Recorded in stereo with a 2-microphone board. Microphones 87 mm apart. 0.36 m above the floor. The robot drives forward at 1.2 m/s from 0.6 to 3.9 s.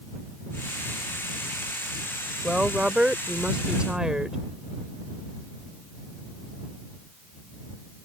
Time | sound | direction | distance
2.4 | a woman speaking | 10° right (ahead or behind) | ?